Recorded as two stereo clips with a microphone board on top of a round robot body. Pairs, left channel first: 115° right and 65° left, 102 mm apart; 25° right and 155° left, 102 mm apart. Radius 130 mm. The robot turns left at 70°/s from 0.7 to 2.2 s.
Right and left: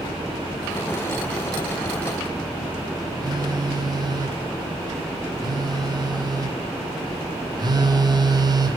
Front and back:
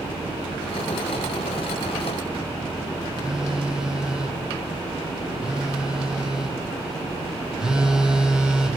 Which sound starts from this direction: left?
A phone buzzing, at 3.2 s.